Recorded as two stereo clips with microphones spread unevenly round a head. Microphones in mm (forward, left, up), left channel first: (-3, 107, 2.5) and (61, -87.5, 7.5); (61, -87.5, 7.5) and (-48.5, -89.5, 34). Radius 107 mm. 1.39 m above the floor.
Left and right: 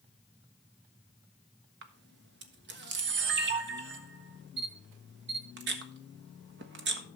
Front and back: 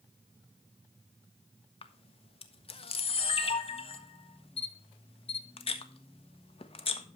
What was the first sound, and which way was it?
A camera shutter, 35° right.